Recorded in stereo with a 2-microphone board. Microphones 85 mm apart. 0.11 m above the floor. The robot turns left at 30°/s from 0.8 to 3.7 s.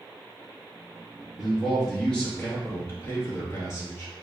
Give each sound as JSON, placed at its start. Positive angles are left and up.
{"t": 1.4, "sound": "a man speaking", "azimuth_deg": -175, "distance_m": 1.4}